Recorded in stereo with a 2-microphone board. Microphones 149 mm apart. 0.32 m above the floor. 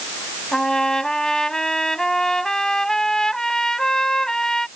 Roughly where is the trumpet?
Centre.